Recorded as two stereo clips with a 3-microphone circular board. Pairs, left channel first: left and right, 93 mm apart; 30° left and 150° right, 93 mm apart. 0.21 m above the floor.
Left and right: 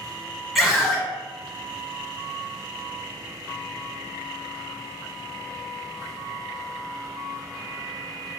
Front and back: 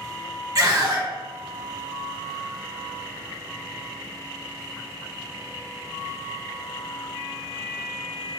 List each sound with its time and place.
0.6 s a scream: straight behind, 1.3 m